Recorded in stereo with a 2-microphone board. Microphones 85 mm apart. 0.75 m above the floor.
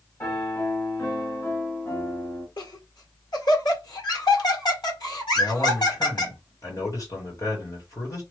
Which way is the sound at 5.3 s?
45° left (ahead or behind).